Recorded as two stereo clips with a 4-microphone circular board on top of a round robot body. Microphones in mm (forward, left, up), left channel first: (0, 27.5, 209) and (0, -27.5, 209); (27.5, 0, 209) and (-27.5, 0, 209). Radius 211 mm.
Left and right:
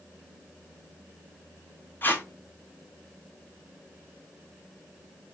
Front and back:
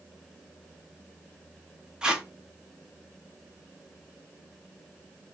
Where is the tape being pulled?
110° left, 0.9 m.